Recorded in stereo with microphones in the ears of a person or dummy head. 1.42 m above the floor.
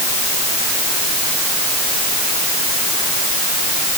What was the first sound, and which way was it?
Only background noise.